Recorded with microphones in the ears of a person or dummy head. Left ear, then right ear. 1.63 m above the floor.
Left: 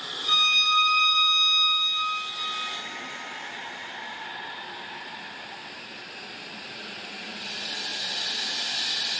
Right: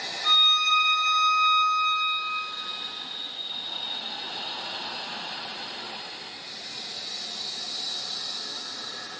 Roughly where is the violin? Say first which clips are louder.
Right 1 dB; right.